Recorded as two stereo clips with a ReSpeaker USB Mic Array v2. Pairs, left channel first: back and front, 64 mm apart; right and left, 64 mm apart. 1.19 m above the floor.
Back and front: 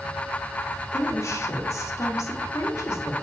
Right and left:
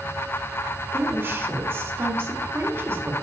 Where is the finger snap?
No finger snap in this recording.